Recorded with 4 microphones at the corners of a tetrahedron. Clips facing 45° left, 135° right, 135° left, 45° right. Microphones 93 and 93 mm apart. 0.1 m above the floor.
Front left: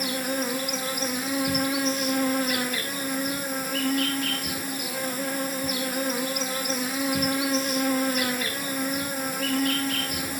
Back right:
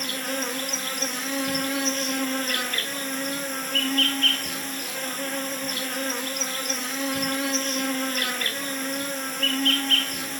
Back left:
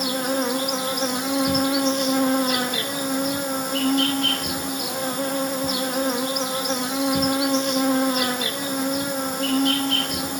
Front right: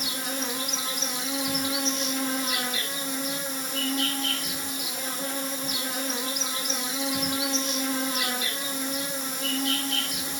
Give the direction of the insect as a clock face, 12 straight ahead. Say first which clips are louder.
Front left 2 dB, back left 10 dB; 8 o'clock.